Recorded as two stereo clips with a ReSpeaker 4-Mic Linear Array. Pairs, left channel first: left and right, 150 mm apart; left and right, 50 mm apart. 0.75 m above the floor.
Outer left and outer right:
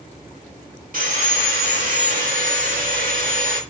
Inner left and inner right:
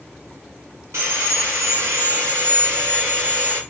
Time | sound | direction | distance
0.9 | sawing | 70° right (ahead or behind) | 1.2 m